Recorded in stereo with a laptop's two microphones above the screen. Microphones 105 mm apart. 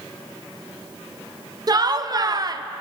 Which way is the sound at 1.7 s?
40° right (ahead or behind).